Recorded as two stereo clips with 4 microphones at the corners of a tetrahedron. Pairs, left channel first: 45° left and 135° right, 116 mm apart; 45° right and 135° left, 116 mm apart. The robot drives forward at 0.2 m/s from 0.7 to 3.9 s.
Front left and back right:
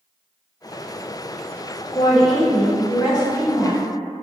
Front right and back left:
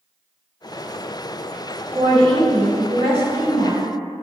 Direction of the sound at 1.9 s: 90° left.